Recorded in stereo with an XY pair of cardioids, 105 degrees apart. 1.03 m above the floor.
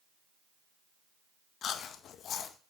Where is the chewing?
65° left, 0.6 m.